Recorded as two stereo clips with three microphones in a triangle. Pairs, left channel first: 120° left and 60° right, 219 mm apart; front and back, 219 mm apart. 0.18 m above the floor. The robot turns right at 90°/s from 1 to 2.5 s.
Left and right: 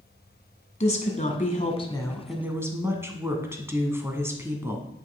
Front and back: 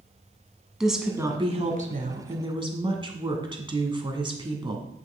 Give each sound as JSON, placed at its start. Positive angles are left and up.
{"t": 0.8, "sound": "a woman speaking", "azimuth_deg": 95, "distance_m": 1.2}